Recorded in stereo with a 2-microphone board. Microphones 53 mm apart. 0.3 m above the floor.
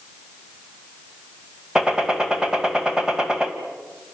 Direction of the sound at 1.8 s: 10° right (ahead or behind).